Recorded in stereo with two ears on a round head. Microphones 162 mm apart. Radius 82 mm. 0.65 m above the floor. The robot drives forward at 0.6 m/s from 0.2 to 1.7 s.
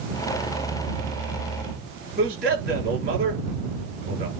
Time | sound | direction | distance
2.2 | a man speaking | 50° right (ahead or behind) | 9 m